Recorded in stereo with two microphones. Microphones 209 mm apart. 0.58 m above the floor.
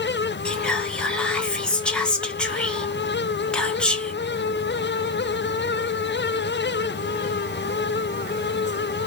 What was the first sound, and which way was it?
Whispering, 5° left (ahead or behind).